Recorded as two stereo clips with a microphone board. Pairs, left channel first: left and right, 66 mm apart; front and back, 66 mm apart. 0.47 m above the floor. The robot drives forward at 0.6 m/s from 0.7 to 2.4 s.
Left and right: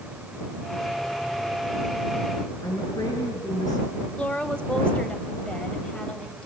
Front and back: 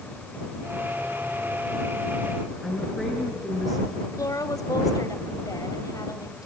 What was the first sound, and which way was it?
A woman speaking, 90° left.